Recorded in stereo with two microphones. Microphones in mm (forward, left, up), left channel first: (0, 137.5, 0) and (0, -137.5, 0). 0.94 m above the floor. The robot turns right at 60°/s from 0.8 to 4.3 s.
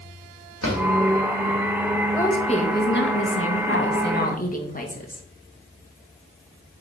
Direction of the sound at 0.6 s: 80° left.